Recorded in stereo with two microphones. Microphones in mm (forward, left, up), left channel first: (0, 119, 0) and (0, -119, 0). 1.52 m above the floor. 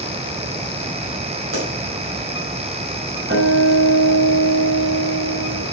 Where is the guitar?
55° right (ahead or behind), 6 m.